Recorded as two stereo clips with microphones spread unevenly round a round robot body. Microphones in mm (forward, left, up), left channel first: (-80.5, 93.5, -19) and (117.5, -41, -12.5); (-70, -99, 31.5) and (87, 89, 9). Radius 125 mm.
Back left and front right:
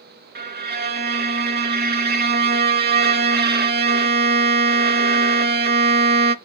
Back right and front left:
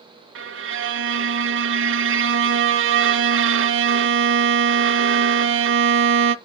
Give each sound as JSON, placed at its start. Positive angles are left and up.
{"t": 0.3, "sound": "a violin", "azimuth_deg": 10, "distance_m": 0.8}